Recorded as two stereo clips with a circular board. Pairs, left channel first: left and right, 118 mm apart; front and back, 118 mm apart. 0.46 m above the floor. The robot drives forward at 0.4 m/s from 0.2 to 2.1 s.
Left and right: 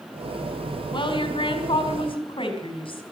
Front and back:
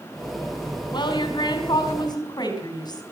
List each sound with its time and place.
0.9 s a woman speaking: 45° left, 4 m; by 3.0 s 50° left, 4 m